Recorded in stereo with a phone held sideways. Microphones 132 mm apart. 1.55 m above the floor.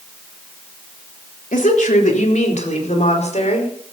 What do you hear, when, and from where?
1.5 s a woman speaking: 80° left, 3.5 m; by 3.7 s 55° left (ahead or behind), 5.5 m